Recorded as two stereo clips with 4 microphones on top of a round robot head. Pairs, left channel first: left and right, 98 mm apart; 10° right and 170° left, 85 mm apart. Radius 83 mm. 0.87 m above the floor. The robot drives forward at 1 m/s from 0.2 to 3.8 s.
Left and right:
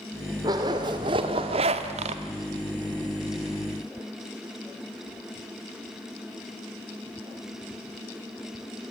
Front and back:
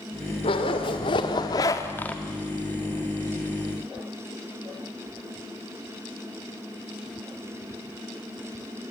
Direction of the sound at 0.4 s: 35° right.